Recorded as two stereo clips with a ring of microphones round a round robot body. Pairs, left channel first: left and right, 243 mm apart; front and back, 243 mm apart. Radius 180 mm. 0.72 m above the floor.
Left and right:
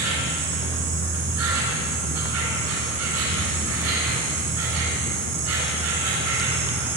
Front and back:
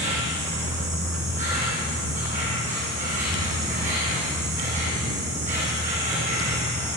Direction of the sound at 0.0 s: 115° right.